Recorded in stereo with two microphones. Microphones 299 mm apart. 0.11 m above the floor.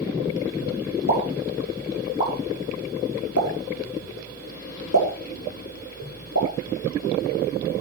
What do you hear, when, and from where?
1.1 s a pop: 70° left (ahead or behind), 5 m